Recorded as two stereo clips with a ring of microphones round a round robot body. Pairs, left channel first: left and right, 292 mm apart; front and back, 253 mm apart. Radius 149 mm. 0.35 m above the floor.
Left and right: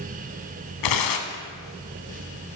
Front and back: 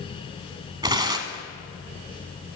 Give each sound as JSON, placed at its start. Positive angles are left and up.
{"t": 0.8, "sound": "tearing paper", "azimuth_deg": 105, "distance_m": 1.1}